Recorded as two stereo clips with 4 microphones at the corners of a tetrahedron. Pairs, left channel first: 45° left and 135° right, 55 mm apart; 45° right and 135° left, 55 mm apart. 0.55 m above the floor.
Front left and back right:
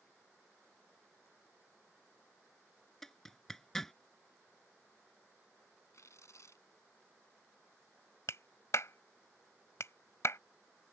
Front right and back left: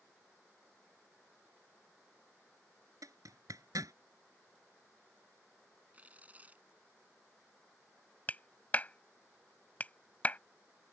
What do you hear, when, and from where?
3.0 s a zipper: 130° left
5.9 s tearing paper: 70° left
8.3 s a clap: 15° left